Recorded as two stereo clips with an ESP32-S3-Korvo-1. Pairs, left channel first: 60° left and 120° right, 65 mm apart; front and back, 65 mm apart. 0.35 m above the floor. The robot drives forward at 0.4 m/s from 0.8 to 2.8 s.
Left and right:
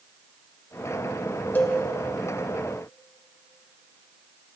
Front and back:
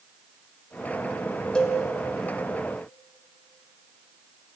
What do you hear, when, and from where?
1.6 s a cowbell: 65° left, 1.5 m; by 1.8 s 70° left, 1.5 m